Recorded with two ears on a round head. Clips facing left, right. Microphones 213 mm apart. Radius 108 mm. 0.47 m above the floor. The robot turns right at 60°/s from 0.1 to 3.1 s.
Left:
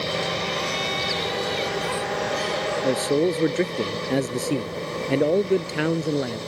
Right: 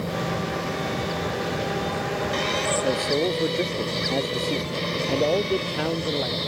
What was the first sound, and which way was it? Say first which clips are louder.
A man speaking: left 4 dB; 10° left (ahead or behind).